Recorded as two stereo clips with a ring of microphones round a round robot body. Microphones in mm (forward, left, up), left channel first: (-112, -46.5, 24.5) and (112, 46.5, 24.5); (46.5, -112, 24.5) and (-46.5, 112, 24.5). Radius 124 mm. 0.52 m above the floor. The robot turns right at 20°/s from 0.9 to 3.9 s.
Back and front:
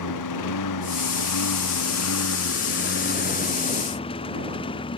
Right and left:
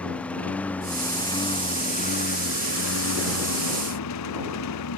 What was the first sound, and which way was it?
A lawn mower, 155° right.